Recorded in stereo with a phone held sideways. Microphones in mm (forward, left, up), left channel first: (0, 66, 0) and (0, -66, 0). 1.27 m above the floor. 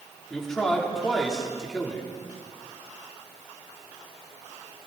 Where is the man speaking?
5° left (ahead or behind), 3.5 m.